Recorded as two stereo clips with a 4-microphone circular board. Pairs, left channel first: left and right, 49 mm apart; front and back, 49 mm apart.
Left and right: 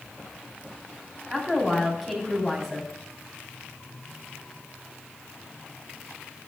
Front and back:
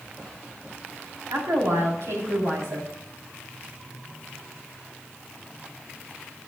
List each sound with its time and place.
1.3 s a woman speaking: 175° right, 4 m